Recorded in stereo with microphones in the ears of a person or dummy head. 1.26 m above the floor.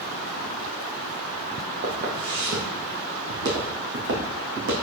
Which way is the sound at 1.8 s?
50° right (ahead or behind).